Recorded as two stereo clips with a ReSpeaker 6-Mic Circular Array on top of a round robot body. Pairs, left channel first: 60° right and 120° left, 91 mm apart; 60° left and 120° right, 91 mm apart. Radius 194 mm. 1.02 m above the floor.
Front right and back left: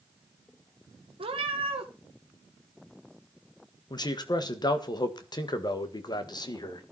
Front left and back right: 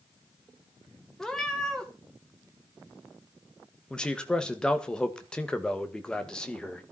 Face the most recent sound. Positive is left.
turn(degrees=-20)